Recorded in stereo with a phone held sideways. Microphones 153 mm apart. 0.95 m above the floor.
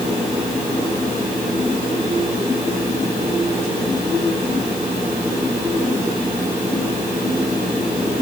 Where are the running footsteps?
No running footsteps in this recording.